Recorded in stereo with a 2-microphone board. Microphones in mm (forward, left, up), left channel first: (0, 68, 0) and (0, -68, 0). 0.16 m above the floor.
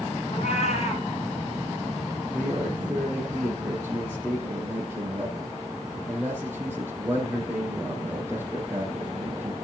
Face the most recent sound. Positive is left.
turn(degrees=-15)  # may be behind; listen again after turning